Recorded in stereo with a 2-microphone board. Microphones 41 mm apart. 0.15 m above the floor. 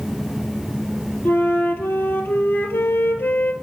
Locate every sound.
1.2 s a flute: 65° left (ahead or behind), 0.8 m